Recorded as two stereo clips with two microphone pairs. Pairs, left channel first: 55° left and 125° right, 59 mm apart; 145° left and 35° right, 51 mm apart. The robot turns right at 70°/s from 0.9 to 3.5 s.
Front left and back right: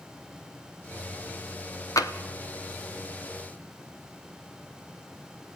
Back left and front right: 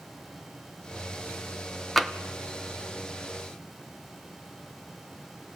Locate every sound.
2.0 s tapping: 55° left, 1.1 m; by 2.1 s 70° left, 1.1 m